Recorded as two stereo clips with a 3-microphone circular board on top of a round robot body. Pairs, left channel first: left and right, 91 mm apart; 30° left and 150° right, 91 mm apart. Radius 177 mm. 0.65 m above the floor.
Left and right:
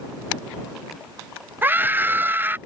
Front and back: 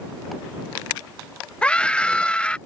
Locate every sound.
1.6 s a scream: 40° right